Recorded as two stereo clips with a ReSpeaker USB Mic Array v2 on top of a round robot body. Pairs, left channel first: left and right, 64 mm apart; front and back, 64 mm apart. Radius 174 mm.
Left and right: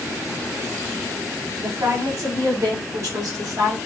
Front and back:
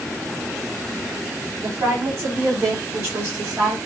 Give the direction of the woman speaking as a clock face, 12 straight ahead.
4 o'clock.